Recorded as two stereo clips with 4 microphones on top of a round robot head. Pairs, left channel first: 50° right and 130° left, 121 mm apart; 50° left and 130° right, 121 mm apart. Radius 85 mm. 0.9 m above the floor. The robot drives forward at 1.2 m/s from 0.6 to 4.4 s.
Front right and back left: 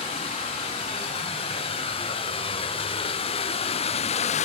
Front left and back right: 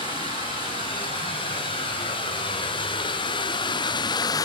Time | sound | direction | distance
0.0 | running water | straight ahead | 5 m